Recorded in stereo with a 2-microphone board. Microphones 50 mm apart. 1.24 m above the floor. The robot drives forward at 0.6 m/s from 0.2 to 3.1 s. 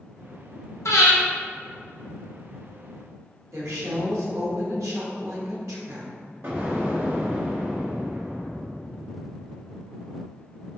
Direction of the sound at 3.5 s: 80° right.